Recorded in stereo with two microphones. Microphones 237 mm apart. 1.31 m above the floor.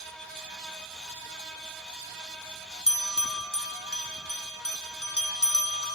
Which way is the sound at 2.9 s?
80° left.